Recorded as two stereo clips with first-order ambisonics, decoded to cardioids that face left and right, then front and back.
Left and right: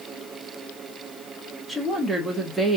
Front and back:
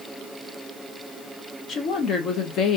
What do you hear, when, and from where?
1.7 s a woman speaking: 10° right, 0.8 m